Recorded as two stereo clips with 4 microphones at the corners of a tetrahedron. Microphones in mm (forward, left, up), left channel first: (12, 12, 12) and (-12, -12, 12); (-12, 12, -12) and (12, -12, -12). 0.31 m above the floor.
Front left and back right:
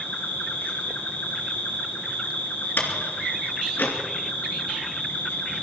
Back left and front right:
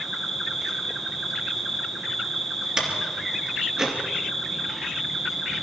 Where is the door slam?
25° left, 2.5 m.